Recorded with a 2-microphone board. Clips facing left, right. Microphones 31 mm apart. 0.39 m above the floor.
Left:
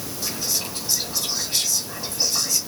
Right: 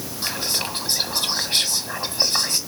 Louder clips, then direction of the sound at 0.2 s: Right 3 dB; 45° right (ahead or behind).